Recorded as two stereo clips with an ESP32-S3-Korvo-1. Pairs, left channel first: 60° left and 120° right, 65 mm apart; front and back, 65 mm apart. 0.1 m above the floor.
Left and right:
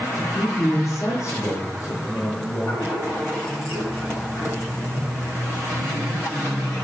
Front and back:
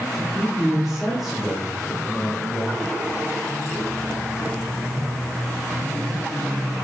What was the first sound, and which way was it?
A man speaking, 90° left.